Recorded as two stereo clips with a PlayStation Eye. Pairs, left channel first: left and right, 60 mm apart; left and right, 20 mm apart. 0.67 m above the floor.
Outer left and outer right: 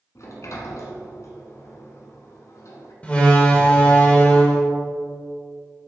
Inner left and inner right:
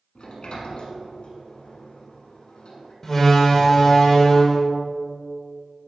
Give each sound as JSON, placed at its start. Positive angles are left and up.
{"t": 0.1, "sound": "a sliding door", "side_deg": 55, "distance_m": 1.2}
{"t": 3.0, "sound": "a door slam", "side_deg": 20, "distance_m": 1.3}